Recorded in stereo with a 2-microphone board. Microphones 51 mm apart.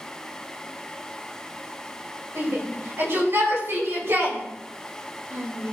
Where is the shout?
60° right (ahead or behind), 5 m.